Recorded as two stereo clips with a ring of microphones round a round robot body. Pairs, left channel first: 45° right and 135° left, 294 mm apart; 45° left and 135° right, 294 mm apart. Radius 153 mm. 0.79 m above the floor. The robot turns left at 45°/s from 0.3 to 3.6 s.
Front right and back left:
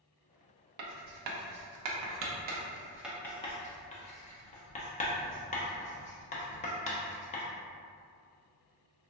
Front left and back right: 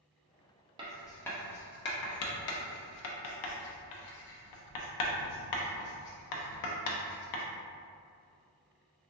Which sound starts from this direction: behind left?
Writing, at 0.8 s.